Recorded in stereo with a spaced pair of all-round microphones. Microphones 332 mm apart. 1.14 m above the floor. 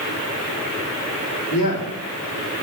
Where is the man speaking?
85° left, 2.5 m.